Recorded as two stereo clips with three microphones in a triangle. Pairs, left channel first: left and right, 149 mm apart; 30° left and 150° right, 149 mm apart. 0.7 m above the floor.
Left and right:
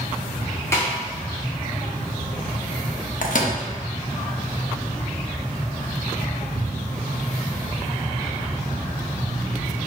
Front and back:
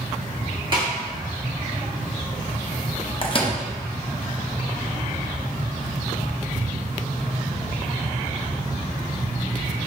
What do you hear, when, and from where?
0.7 s a snare drum: 160° left, 1.3 m
3.2 s a microwave: 80° left, 0.6 m